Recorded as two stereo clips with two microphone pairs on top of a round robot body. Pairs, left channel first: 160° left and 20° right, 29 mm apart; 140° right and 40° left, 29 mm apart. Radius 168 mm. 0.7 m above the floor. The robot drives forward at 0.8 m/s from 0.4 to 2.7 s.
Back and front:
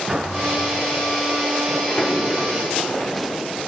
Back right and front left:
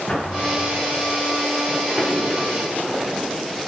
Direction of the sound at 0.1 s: 80° right.